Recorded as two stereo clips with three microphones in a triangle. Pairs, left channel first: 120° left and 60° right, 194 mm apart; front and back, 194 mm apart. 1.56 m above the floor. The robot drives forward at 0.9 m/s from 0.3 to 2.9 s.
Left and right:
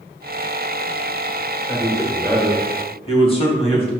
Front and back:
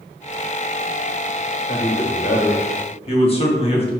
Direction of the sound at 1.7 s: 40° left.